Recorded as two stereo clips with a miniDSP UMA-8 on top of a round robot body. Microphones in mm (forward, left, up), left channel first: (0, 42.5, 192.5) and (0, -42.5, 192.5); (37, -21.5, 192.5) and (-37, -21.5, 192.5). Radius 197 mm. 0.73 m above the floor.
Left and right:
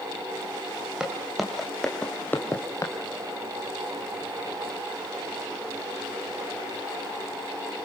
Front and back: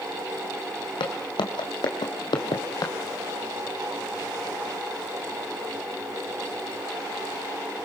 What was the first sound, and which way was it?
Footsteps, 10° right.